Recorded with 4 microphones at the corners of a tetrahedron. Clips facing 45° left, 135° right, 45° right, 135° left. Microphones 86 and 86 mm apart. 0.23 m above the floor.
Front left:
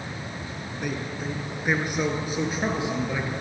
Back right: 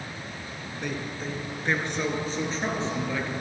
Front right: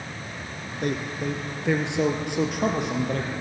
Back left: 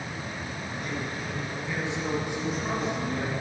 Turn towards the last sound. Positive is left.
turn(degrees=-30)